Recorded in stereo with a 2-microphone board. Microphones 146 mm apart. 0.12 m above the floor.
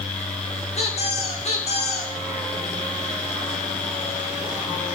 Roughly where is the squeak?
Left.